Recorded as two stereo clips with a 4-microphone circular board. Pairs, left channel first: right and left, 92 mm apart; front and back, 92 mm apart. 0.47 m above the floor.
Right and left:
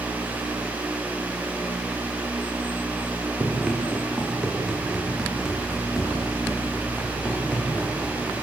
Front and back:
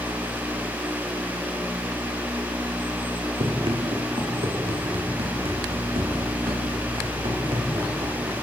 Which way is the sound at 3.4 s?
160° left.